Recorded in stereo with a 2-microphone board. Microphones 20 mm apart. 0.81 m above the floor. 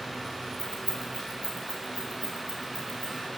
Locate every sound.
0.6 s keys jangling: 85° left, 4.5 m; by 3.3 s 90° left, 7 m